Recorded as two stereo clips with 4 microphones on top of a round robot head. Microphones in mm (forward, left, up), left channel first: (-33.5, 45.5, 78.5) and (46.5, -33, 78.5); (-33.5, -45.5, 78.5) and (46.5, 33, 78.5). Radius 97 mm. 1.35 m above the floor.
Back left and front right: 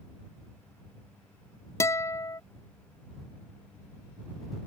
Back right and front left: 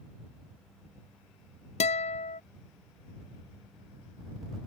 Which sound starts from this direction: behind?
A guitar, at 1.8 s.